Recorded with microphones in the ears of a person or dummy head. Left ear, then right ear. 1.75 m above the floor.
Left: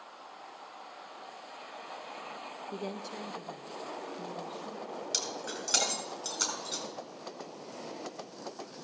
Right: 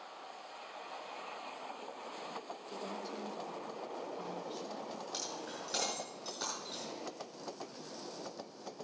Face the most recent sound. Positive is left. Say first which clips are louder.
# left 9 dB
turn(degrees=50)  # may be behind; listen again after turning